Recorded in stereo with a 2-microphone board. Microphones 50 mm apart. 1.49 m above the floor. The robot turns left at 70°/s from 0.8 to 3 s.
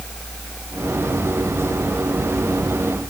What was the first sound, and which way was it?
Only background noise.